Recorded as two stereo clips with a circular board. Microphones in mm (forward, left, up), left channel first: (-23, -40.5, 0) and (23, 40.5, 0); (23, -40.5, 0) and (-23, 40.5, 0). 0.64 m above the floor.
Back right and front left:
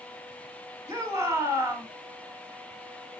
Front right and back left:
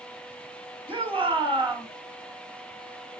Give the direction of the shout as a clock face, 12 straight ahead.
8 o'clock.